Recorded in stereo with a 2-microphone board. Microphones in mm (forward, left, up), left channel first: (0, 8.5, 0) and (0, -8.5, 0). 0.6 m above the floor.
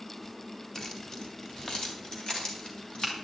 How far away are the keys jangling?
About 1.7 m.